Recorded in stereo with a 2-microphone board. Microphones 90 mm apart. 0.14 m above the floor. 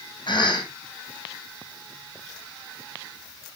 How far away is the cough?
About 5 m.